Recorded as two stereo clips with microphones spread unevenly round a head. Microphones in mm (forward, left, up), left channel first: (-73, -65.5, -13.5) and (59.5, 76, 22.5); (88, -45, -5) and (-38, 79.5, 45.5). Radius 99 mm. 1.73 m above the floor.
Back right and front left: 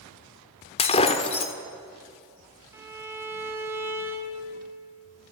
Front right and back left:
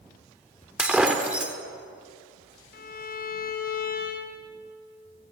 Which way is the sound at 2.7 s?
10° right.